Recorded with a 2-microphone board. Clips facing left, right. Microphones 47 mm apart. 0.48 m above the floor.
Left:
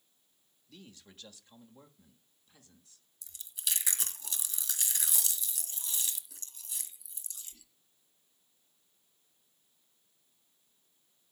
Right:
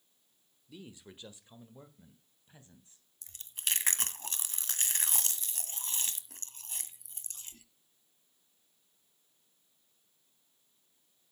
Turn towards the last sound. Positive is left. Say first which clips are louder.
# right 2 dB
turn(degrees=-50)  # may be behind; listen again after turning